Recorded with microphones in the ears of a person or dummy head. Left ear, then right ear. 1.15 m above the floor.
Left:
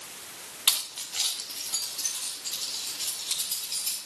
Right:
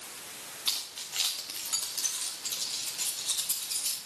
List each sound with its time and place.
0.7 s keys jangling: 20° left (ahead or behind), 0.7 m; by 4.0 s 55° right (ahead or behind), 4 m